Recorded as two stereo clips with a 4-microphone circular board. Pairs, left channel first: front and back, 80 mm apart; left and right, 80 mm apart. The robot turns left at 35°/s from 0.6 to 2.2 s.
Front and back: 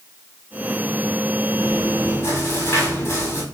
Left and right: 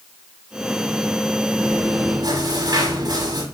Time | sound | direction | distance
1.6 | chewing | 40° right | 6 m